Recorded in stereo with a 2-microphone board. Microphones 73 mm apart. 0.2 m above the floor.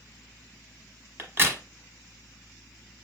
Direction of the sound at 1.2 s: 35° right (ahead or behind).